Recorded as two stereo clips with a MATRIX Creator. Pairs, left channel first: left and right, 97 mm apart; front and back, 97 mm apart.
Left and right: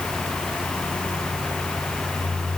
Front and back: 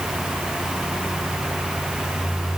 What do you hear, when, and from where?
Only background noise.